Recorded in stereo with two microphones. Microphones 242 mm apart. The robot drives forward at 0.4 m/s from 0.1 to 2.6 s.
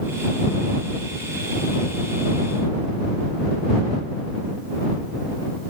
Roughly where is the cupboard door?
No cupboard door in this recording.